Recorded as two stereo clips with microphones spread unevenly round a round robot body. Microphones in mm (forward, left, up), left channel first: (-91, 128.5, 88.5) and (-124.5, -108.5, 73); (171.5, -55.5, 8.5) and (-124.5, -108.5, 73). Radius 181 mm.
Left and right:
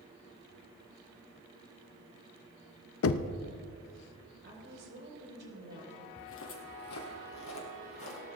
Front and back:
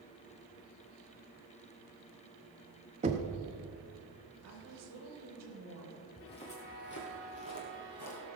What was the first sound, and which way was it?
Knocking, 115° left.